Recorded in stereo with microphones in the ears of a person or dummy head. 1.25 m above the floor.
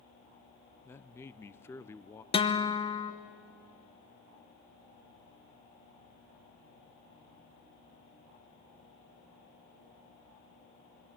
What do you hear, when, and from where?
0.8 s a man speaking: 15° left (ahead or behind), 0.5 m
2.3 s a guitar: 30° left (ahead or behind), 1.0 m